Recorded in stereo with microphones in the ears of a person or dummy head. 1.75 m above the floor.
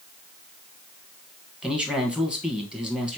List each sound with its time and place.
1.6 s a man speaking: 10° right (ahead or behind), 1.6 m